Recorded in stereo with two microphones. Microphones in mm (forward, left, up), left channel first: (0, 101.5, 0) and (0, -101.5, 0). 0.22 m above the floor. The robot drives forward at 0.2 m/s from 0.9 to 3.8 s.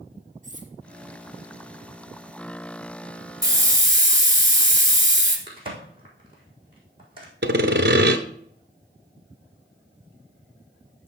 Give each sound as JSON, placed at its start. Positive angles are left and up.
{"t": 0.4, "sound": "cutlery clinking", "side_deg": -40, "distance_m": 1.7}
{"t": 3.4, "sound": "a hiss", "side_deg": -15, "distance_m": 1.9}
{"t": 5.5, "sound": "a crack", "side_deg": -25, "distance_m": 4.0}
{"t": 7.4, "sound": "sawing", "side_deg": -60, "distance_m": 0.8}